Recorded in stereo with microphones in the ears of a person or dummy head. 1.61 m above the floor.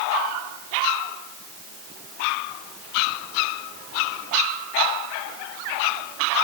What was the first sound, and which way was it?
Only background noise.